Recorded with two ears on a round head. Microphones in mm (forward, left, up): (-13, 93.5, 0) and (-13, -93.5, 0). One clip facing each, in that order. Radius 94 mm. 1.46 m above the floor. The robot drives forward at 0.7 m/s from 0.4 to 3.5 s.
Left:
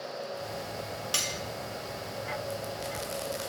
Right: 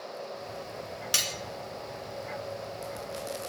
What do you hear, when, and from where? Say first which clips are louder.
1.1 s cutlery clinking: left 1 dB; 20° right (ahead or behind), 0.6 m